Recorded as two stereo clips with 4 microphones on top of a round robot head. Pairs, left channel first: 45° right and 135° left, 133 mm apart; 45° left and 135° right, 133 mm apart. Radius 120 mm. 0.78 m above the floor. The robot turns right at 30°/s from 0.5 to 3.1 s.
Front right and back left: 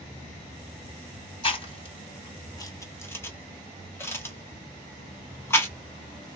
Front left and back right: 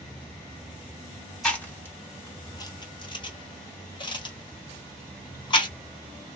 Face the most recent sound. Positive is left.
turn(degrees=15)